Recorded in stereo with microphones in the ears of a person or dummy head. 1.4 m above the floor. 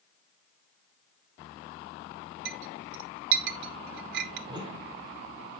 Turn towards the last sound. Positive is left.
turn(degrees=-20)  # may be behind; listen again after turning